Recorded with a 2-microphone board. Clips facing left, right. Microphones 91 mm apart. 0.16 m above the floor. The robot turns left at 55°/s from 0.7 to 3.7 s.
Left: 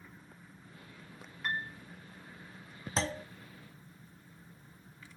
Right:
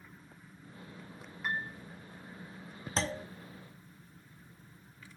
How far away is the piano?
About 0.8 m.